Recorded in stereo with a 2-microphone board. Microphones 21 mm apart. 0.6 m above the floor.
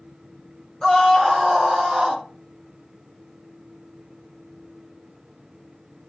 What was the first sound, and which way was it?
A scream, 25° left (ahead or behind).